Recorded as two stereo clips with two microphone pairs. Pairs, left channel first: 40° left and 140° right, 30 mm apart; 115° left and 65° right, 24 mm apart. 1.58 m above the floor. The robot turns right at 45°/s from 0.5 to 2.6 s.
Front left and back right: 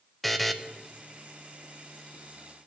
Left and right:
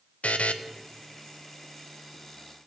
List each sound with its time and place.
0.2 s a buzzer: 125° left, 0.6 m